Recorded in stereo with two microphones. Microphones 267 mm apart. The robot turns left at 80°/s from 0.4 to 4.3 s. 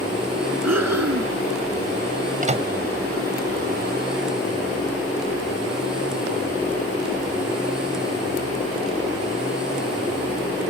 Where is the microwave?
35° right (ahead or behind); by 2.7 s 10° right (ahead or behind).